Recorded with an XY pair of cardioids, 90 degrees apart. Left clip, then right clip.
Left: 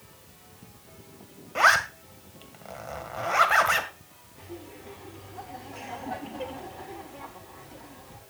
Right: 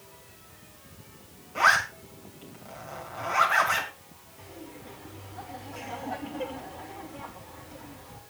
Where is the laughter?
30° left, 9.5 m.